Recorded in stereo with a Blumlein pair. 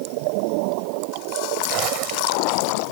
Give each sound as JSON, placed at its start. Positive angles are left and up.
{"t": 1.7, "sound": "a zipper", "azimuth_deg": -40}